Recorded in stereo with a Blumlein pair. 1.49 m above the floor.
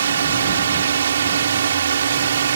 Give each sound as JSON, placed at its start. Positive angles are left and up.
{"t": 0.0, "sound": "a drone", "azimuth_deg": -65}